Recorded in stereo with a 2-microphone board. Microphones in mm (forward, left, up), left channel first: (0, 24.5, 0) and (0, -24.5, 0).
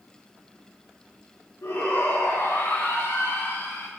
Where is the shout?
85° left, 5 m; by 3.9 s 75° left (ahead or behind), 3.5 m.